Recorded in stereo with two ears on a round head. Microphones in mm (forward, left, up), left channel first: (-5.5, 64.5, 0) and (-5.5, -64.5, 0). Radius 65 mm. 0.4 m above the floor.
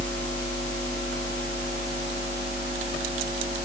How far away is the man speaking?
I don't hear a man speaking.